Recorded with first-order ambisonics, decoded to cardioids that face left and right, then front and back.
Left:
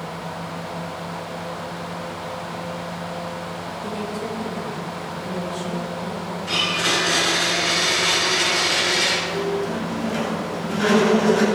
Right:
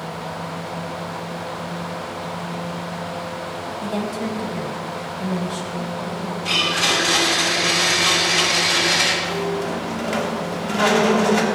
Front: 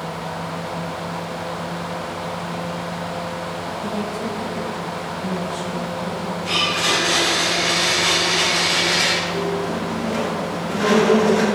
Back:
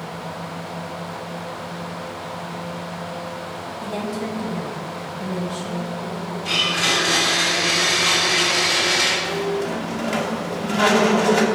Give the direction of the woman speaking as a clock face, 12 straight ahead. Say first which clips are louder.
Right 3 dB, back 1 dB; 4 o'clock.